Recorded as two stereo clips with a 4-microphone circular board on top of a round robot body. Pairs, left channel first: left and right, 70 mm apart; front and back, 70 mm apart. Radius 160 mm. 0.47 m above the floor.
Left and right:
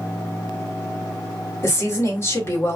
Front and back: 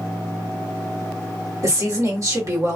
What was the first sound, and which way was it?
A woman speaking, 140° left.